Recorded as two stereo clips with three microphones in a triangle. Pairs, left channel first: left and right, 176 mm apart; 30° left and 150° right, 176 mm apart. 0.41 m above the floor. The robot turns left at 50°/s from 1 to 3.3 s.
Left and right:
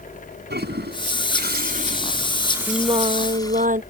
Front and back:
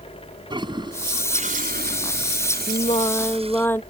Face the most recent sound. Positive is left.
turn(degrees=-50)